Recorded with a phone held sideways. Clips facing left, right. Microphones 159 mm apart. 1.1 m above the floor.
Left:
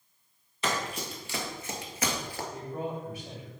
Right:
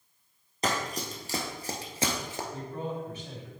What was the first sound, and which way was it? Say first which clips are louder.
Running footsteps: right 1 dB; 40° right (ahead or behind).